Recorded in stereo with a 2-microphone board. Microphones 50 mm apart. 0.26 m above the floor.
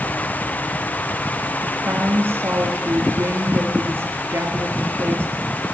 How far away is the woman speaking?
About 4.5 m.